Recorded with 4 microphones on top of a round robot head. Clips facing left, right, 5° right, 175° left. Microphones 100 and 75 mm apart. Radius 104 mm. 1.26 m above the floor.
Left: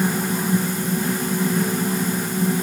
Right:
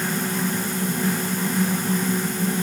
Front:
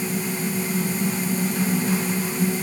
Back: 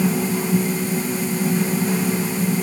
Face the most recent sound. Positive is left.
No sound to turn to.